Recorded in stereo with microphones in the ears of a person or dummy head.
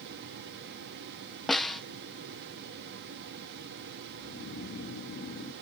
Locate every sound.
1.5 s a snare drum: centre (ahead or behind)
4.2 s snoring: 50° left (ahead or behind)